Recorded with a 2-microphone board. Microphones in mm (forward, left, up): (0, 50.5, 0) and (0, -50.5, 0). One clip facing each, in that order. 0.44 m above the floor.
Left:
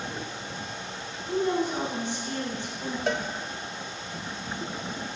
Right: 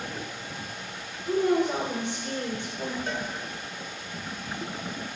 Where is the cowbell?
65° left (ahead or behind), 0.7 m.